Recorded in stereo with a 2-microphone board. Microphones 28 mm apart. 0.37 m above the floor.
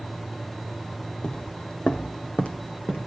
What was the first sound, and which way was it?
Footsteps, 40° left (ahead or behind).